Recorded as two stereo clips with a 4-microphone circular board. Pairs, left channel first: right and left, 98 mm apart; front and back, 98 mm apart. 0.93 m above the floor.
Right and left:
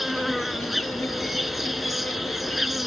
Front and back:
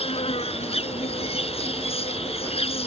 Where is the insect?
Straight ahead.